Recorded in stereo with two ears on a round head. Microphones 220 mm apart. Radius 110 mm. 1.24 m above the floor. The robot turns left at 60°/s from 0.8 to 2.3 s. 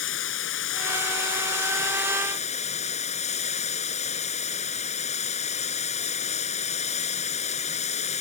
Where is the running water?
120° left; by 8.2 s 30° left.